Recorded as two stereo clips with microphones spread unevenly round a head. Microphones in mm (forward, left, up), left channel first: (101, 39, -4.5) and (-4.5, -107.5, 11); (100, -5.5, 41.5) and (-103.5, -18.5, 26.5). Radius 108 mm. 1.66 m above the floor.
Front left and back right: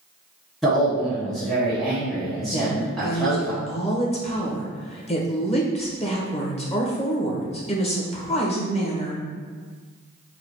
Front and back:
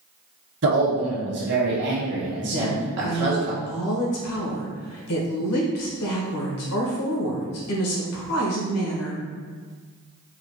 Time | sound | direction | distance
0.6 | a man speaking | 145° left | 1.5 m
2.5 | a woman speaking | 5° right | 1.4 m